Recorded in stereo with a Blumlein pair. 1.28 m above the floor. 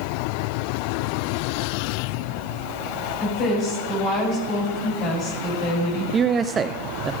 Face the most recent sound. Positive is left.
turn(degrees=-20)